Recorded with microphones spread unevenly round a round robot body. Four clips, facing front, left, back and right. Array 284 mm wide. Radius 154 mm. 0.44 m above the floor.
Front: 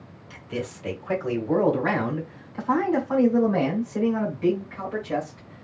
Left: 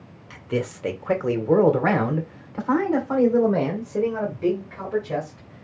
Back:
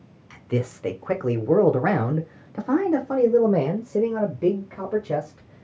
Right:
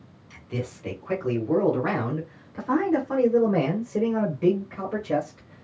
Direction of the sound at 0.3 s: 110° left.